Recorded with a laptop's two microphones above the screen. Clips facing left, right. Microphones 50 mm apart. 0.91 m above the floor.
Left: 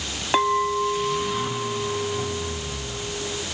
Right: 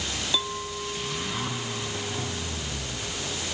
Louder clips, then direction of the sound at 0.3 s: Left 14 dB; 55° left (ahead or behind).